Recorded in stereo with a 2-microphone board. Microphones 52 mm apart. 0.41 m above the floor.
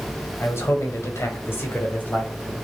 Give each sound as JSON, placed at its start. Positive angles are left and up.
{"t": 0.4, "sound": "a man speaking", "side_deg": 55, "distance_m": 2.0}